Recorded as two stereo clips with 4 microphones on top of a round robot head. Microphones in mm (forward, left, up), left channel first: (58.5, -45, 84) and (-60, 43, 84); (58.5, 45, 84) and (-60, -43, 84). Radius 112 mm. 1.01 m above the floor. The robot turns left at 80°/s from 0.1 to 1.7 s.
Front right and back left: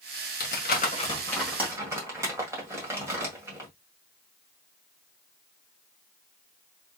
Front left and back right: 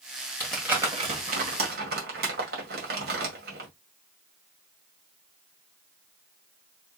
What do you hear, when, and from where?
0.4 s crumpling: 40° right, 2.0 m; by 3.7 s 145° right, 2.0 m